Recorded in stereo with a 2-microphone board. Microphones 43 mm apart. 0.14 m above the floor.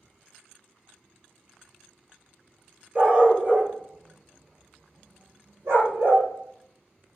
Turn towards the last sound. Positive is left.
turn(degrees=-65)  # may be behind; listen again after turning